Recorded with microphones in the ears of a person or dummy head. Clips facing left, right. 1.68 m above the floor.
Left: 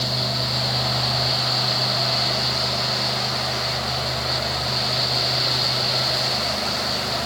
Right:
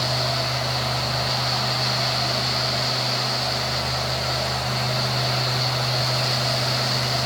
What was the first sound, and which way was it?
Only background noise.